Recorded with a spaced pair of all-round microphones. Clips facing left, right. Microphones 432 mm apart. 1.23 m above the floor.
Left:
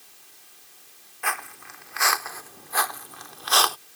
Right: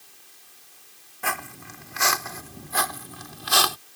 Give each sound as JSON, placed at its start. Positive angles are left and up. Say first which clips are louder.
{"t": 1.2, "sound": "footsteps", "louder": "right 3 dB", "side_deg": -50}